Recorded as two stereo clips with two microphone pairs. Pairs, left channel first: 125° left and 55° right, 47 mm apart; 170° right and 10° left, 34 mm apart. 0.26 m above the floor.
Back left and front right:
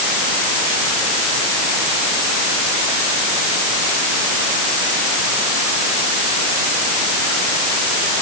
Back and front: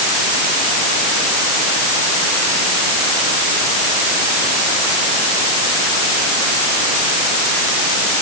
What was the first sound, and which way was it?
Only background noise.